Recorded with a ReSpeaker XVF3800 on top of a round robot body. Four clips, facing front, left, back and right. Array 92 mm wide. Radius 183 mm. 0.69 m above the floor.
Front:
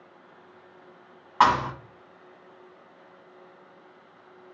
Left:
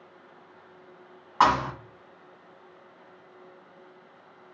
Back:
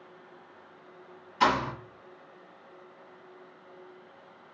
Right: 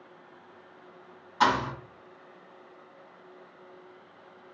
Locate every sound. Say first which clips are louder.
1.4 s a thud: left 3 dB, front 5 dB; 30° left, 1.6 m